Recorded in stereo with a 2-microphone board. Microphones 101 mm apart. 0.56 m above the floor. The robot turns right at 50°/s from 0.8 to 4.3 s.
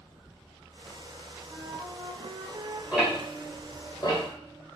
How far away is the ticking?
About 1.7 m.